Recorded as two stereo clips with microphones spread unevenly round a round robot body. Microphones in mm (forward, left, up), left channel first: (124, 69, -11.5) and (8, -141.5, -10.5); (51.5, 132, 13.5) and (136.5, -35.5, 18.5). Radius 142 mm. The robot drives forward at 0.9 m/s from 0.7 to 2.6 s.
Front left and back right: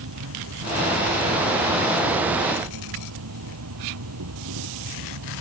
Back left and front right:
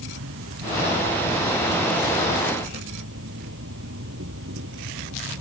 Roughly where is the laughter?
I don't hear laughter.